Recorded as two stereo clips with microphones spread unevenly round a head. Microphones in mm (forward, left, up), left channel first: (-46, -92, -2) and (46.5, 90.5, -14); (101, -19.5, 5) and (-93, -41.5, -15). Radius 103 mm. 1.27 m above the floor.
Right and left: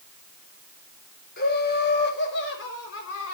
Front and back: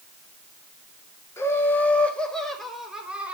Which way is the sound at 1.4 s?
70° right.